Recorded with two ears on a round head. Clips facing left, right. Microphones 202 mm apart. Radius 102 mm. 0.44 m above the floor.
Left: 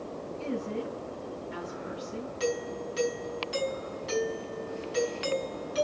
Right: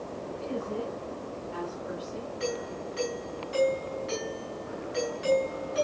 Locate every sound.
0.4 s a woman speaking: 80° left, 7.5 m
2.4 s a doorbell: 55° left (ahead or behind), 5 m